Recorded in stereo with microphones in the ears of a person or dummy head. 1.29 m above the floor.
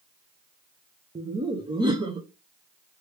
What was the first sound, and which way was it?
Laughter, 20° right (ahead or behind).